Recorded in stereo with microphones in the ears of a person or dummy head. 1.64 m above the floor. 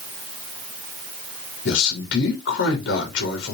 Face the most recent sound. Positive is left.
turn(degrees=75)  # may be behind; listen again after turning